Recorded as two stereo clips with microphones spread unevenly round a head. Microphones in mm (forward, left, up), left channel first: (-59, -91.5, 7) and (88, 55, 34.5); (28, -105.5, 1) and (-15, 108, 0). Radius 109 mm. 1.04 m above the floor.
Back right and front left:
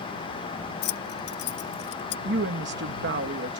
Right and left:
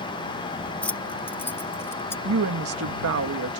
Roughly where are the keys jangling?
Behind.